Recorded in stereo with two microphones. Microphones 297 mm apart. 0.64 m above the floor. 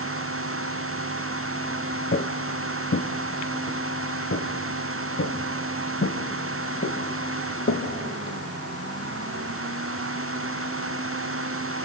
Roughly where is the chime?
No chime in this recording.